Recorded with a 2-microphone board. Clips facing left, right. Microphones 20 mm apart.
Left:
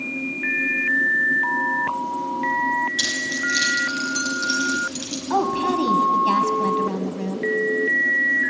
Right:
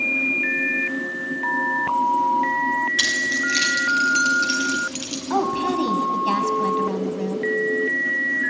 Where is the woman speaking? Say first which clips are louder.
Left 1 dB; 5° left (ahead or behind), 1.6 m.